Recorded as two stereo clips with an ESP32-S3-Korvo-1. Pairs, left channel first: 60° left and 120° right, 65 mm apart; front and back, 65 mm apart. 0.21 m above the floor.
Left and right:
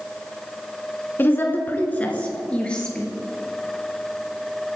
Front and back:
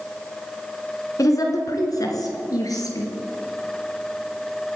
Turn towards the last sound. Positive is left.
turn(degrees=-15)